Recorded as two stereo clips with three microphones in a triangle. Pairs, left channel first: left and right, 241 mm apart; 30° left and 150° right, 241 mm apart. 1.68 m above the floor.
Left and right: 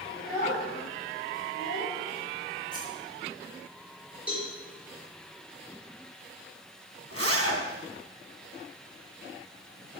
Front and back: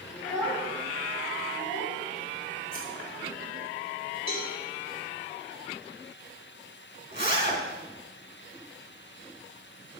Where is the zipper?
110° right, 3 m.